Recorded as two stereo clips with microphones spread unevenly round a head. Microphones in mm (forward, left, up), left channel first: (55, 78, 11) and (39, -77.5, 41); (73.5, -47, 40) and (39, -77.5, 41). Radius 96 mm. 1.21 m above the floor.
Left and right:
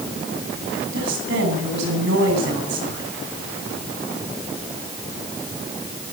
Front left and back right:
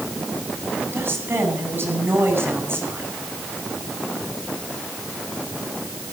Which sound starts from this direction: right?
A woman speaking, at 0.9 s.